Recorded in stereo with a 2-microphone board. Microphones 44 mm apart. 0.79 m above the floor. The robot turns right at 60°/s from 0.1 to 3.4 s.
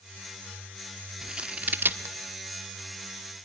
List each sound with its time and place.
1.2 s scissors: 15° right (ahead or behind), 1.5 m; by 2.1 s 65° right (ahead or behind), 1.5 m